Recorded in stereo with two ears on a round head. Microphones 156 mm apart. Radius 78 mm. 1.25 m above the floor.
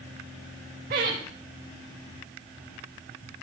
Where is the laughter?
50° right (ahead or behind), 1.5 m.